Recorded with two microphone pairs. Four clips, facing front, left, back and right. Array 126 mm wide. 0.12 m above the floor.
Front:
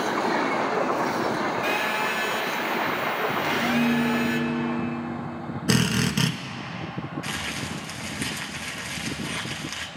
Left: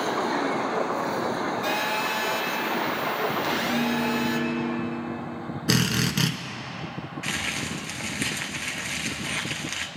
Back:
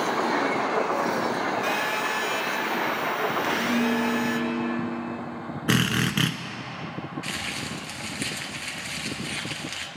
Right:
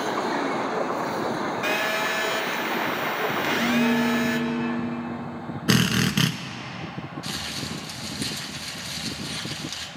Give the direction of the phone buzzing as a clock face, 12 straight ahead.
3 o'clock.